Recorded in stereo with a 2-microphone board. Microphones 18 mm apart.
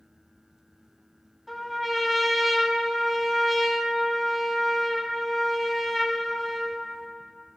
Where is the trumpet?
Centre (ahead or behind), 1.8 m.